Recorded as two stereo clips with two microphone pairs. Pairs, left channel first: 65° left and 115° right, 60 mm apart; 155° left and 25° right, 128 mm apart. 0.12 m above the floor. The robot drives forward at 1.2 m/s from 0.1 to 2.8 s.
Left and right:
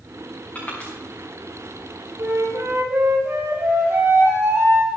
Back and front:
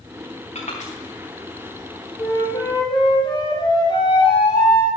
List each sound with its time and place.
0.6 s crushing: 130° left, 4 m; by 0.9 s 135° left, 4.5 m
2.2 s a flute: 145° right, 2 m; by 4.9 s 155° right, 2.5 m